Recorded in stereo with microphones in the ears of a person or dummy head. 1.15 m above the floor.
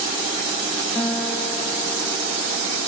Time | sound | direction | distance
0.9 | a guitar | 10° left (ahead or behind) | 1.2 m